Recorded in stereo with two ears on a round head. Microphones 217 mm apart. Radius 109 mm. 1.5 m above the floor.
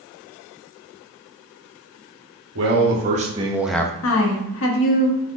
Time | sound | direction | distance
2.5 | a man speaking | 50° right (ahead or behind) | 1.1 m
4.0 | a woman speaking | 60° left (ahead or behind) | 1.0 m